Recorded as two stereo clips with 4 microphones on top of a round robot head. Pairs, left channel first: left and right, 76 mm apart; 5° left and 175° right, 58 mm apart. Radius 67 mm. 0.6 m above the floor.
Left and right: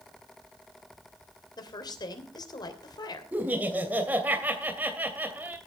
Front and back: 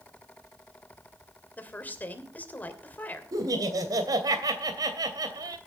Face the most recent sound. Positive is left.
turn(degrees=-160)